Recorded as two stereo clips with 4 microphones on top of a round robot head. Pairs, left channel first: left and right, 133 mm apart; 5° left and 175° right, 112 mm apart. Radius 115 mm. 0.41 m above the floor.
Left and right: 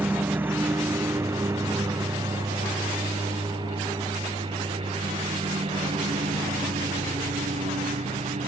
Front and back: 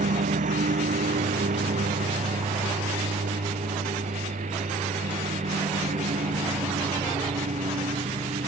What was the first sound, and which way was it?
A lawn mower, 170° right.